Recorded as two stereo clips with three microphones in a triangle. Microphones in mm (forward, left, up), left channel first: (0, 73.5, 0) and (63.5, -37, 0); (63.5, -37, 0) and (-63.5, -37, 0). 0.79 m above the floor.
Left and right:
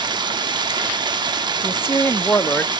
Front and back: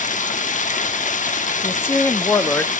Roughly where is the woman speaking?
Ahead left.